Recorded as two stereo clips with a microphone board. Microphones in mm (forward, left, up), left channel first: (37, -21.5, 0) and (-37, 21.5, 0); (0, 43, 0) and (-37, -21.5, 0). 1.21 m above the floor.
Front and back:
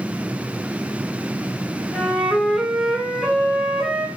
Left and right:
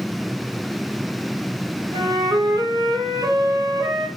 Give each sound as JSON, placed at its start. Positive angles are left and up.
{"t": 1.9, "sound": "a flute", "azimuth_deg": -125, "distance_m": 1.5}